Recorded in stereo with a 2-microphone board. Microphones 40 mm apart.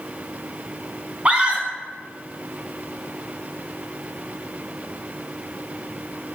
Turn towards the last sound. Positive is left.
turn(degrees=-35)  # may be behind; listen again after turning